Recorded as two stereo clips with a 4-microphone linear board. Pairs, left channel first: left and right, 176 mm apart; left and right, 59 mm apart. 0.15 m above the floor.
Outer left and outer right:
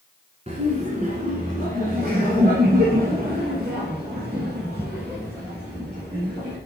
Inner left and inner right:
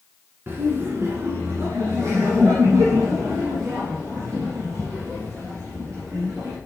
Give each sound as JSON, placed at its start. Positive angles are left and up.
{"t": 0.5, "sound": "laughter", "side_deg": -40, "distance_m": 1.4}